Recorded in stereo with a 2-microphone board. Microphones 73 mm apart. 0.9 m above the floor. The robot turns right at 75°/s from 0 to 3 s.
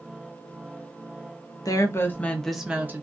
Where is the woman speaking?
115° left, 0.6 m; by 3.0 s 145° right, 0.6 m.